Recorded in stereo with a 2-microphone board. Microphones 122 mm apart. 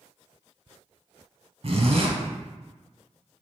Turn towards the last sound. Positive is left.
turn(degrees=-55)  # may be behind; listen again after turning